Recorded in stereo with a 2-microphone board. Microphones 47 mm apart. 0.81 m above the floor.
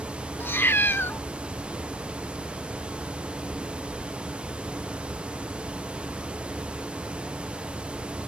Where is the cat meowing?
50° left (ahead or behind).